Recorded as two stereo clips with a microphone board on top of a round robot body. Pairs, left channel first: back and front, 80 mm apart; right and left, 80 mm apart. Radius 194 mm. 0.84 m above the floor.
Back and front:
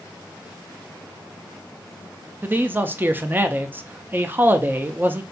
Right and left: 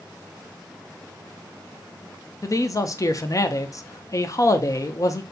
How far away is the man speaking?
About 0.6 m.